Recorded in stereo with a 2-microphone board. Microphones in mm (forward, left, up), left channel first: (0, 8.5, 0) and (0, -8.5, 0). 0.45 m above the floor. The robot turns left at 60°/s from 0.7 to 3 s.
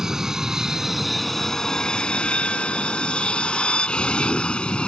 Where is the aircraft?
155° right; by 4.9 s 70° left.